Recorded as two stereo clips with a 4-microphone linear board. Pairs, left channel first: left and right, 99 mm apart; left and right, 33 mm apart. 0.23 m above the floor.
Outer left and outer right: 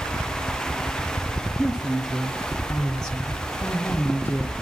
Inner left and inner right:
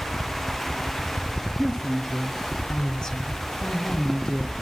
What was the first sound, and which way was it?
A woman speaking, 10° right (ahead or behind).